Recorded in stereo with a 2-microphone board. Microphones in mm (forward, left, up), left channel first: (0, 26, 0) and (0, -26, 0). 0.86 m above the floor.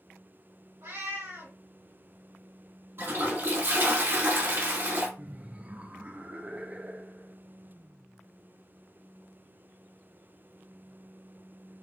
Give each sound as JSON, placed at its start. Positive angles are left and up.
{"t": 0.8, "sound": "a cat meowing", "side_deg": -70, "distance_m": 2.0}
{"t": 3.0, "sound": "a toilet flushing", "side_deg": -50, "distance_m": 1.4}
{"t": 5.2, "sound": "laughter", "side_deg": -25, "distance_m": 0.6}